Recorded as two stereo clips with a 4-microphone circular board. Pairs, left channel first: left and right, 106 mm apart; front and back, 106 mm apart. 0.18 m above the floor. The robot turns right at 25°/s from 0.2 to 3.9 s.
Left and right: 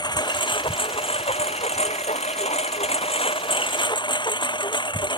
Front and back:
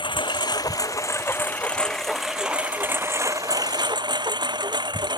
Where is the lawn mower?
45° left; by 5.2 s 135° left.